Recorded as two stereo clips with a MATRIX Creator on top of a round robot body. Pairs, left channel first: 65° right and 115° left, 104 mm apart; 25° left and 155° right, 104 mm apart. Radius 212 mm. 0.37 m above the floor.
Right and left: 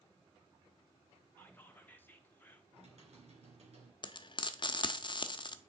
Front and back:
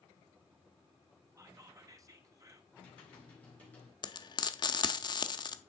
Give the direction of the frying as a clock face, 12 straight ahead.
1 o'clock.